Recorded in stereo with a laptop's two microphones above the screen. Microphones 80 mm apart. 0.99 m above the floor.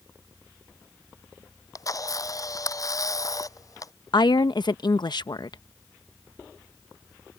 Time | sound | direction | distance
1.8 | a camera shutter | 45° left (ahead or behind) | ?
4.1 | a woman speaking | 60° left (ahead or behind) | ?